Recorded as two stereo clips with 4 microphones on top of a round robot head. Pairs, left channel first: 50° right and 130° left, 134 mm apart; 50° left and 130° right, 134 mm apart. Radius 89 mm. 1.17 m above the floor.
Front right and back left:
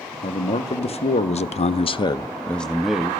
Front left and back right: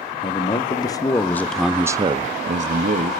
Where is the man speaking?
5° right, 1.4 m; by 3.1 s 145° right, 1.0 m.